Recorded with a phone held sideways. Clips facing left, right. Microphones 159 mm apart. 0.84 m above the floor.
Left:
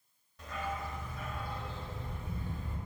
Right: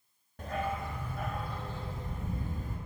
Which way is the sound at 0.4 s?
55° right (ahead or behind).